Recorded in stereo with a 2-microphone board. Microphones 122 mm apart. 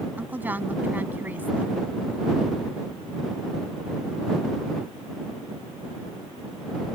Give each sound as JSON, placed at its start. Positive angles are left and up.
{"t": 0.2, "sound": "a woman speaking", "side_deg": -15}